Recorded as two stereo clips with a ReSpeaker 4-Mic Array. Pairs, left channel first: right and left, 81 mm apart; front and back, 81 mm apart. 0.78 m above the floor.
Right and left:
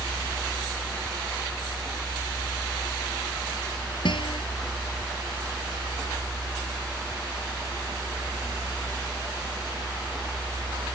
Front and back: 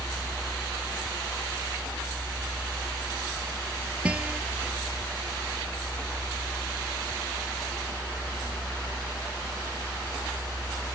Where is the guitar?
105° right.